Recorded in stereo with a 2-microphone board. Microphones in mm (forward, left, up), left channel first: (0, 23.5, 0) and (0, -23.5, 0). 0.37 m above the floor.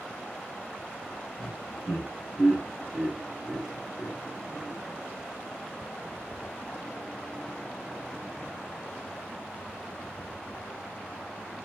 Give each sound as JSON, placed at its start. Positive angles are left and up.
{"t": 1.4, "sound": "laughter", "side_deg": 10, "distance_m": 1.6}